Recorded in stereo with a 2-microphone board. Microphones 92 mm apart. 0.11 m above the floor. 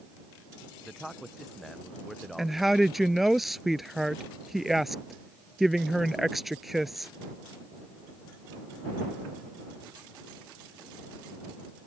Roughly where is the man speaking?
Centre.